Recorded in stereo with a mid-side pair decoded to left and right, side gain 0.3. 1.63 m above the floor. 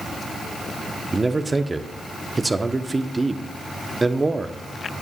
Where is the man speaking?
30° right, 1.0 m.